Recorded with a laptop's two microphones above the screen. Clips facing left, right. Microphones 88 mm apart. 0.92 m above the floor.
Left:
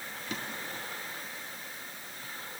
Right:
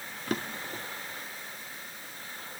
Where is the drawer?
55° right (ahead or behind), 0.8 m.